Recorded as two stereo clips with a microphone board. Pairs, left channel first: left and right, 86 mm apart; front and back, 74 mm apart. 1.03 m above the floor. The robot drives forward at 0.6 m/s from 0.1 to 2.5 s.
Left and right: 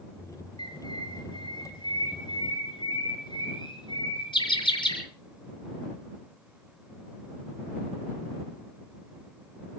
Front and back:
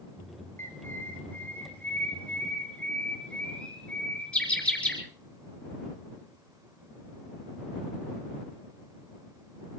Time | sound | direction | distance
0.6 | a bird | 60° left | 4.5 m